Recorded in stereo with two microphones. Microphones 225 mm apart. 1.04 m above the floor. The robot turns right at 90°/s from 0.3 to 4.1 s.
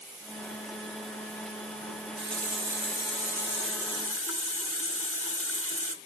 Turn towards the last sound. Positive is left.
turn(degrees=110)